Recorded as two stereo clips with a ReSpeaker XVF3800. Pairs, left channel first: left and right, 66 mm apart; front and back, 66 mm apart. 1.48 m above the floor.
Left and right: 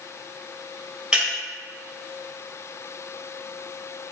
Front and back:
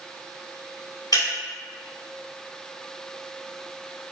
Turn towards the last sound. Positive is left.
turn(degrees=-15)